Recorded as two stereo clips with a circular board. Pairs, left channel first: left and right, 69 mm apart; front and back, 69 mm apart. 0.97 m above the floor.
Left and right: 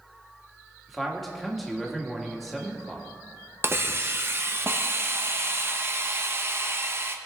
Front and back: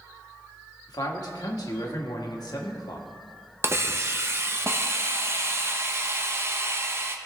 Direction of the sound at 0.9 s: Straight ahead.